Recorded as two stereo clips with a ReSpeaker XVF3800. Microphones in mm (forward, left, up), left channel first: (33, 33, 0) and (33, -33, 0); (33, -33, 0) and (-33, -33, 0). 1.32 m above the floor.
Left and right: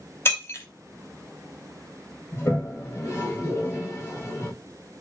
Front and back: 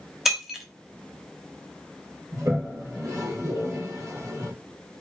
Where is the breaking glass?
100° left, 0.9 m.